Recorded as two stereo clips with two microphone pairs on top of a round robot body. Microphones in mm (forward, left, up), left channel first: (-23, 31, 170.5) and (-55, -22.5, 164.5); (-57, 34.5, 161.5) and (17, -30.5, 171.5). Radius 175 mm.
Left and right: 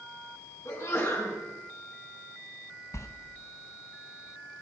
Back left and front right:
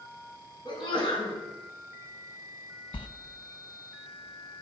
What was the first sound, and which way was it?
A sneeze, 100° left.